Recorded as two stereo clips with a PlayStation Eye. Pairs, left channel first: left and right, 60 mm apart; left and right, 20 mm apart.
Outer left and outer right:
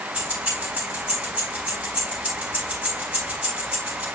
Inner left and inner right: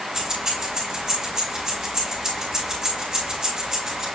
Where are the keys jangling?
25° right (ahead or behind), 4 m.